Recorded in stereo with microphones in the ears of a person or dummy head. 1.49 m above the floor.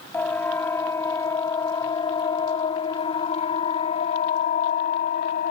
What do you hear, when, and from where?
0.1 s a siren: 15° left (ahead or behind); by 5.5 s 55° left (ahead or behind)